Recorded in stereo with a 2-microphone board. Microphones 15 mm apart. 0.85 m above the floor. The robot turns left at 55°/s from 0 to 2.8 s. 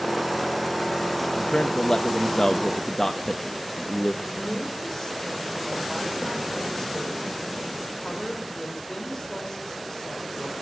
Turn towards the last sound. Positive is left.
turn(degrees=35)  # may be behind; listen again after turning